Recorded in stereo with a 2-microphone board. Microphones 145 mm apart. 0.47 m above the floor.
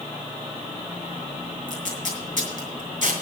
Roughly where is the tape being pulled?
Right.